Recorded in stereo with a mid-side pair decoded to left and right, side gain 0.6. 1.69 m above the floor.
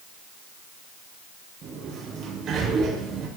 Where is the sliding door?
50° right, 8 m.